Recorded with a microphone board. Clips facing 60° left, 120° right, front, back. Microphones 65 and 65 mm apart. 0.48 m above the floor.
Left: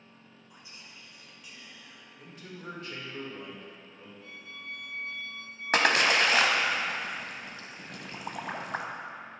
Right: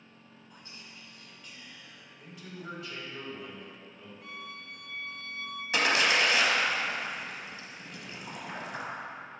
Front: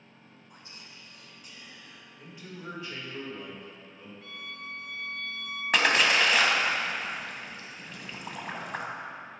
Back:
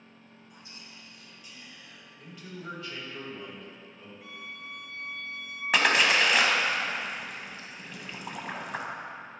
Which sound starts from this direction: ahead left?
A man speaking, at 2.2 s.